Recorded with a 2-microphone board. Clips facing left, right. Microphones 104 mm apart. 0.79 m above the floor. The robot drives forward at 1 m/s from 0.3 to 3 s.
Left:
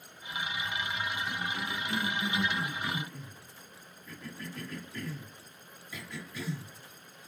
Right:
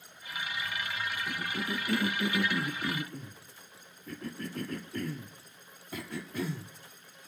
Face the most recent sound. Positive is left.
turn(degrees=-50)  # may be behind; listen again after turning